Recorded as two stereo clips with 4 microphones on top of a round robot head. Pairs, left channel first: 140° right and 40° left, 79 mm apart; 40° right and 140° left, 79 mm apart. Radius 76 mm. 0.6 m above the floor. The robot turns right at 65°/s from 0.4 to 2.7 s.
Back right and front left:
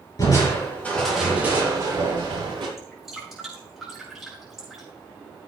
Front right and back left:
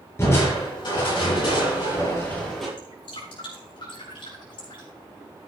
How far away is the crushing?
About 6.5 m.